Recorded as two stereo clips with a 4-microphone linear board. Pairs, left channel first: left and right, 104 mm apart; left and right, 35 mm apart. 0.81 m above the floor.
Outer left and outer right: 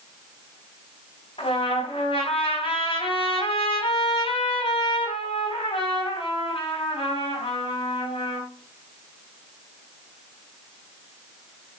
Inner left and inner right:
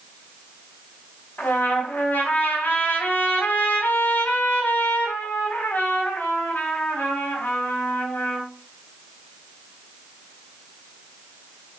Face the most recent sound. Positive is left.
turn(degrees=70)  # may be behind; listen again after turning